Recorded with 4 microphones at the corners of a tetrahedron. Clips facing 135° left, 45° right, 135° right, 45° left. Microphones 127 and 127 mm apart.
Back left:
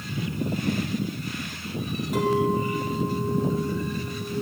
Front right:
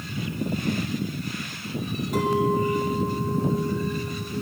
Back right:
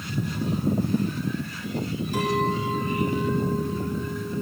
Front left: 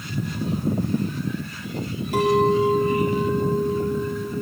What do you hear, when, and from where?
2.1 s a clink: 45° left, 6.5 m